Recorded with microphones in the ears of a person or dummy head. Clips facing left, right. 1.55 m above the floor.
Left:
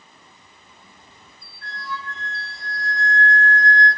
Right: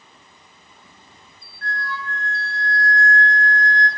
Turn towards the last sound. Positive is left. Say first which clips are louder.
# right 3 dB
turn(degrees=10)  # may be behind; listen again after turning